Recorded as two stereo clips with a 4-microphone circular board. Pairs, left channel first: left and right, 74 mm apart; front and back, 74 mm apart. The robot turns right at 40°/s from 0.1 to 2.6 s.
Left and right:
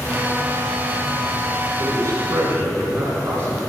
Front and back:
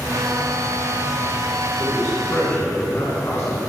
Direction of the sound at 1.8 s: 100° right.